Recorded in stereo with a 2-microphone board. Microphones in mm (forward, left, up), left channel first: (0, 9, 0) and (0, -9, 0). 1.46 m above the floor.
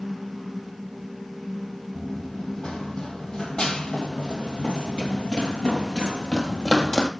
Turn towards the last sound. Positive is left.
turn(degrees=40)  # may be behind; listen again after turning